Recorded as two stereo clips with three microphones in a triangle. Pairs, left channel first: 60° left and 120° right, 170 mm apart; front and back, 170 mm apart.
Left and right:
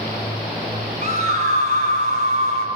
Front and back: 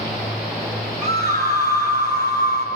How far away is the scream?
About 8 m.